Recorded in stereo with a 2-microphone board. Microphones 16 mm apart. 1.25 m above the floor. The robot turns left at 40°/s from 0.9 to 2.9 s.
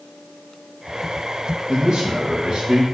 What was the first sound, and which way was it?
A man speaking, 50° right.